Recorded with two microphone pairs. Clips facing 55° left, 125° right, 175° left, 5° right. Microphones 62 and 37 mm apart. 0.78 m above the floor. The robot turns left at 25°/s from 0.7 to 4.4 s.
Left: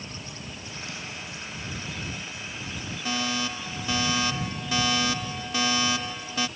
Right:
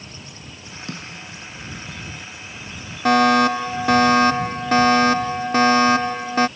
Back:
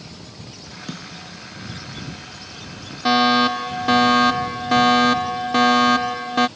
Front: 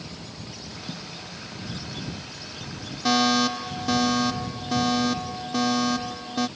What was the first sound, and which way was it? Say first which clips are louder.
A snare drum: right 6 dB, back 5 dB; 160° right.